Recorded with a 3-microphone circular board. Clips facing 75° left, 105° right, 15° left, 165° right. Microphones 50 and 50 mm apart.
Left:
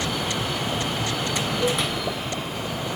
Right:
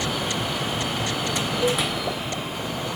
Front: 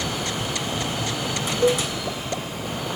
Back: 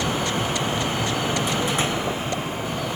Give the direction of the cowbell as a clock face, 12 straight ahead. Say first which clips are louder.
Right 1 dB, front 4 dB; 1 o'clock.